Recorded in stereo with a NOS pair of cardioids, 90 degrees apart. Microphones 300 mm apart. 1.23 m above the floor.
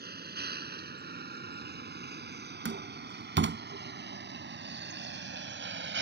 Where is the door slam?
40° right.